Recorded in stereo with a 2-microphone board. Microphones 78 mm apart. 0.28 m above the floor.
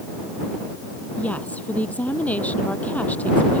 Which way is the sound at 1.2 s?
15° left (ahead or behind).